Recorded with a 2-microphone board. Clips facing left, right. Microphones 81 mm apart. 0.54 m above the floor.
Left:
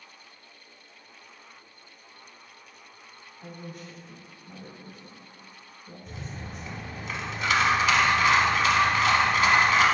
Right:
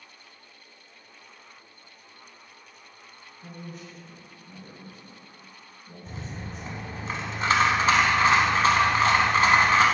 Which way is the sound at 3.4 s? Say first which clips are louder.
Even; 50° left (ahead or behind).